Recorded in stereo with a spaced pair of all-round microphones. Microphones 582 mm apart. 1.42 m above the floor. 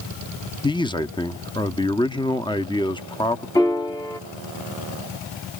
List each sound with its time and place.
0.6 s a man speaking: 10° left (ahead or behind), 1.0 m
3.5 s a piano: 5° left (ahead or behind), 1.2 m